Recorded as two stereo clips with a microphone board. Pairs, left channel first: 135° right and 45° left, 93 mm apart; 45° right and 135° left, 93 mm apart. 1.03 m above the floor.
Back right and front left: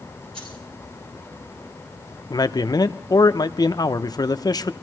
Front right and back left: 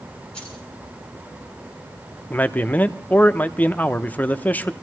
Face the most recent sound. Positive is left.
turn(degrees=-110)